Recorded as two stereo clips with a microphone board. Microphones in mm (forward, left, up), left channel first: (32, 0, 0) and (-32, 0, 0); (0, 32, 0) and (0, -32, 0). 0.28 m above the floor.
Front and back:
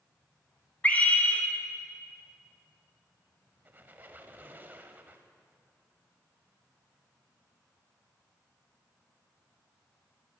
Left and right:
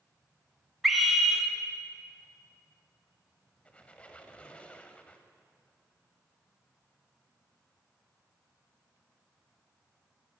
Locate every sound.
0.8 s a scream: straight ahead, 1.0 m
3.6 s a squeak: 150° left, 0.6 m